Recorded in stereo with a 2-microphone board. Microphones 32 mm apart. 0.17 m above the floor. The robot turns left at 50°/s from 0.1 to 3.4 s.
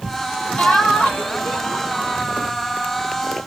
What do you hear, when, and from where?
0.6 s laughter: 55° left, 3 m; by 2.2 s 25° right, 3 m